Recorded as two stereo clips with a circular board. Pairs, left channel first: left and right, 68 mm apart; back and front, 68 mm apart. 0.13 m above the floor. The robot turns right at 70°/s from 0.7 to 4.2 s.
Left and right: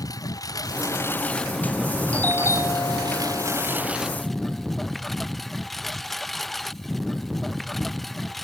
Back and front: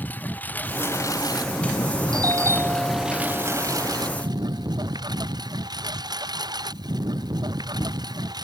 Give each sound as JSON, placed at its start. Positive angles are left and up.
{"t": 0.0, "sound": "a lawn mower", "azimuth_deg": 115}
{"t": 2.1, "sound": "a doorbell", "azimuth_deg": 20}